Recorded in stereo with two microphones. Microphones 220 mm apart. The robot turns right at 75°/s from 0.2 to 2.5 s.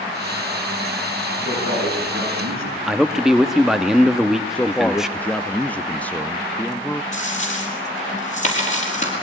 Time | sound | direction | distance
1.4 | a man speaking | 145° right | 7 m
2.9 | a man speaking | centre (ahead or behind) | 0.9 m
4.5 | a man speaking | 5° left (ahead or behind) | 0.5 m
7.1 | a dropped coin | 35° left (ahead or behind) | 5.5 m